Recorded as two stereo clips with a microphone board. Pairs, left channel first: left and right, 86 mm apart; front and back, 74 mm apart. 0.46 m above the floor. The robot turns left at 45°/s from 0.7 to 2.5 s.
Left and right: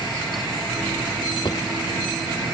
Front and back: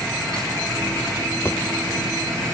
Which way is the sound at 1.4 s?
55° left.